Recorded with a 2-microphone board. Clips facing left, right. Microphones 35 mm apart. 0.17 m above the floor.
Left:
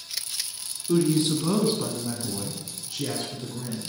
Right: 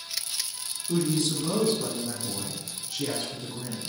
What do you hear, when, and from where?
0.9 s a woman speaking: 30° left (ahead or behind), 1.5 m; by 3.9 s centre (ahead or behind), 2 m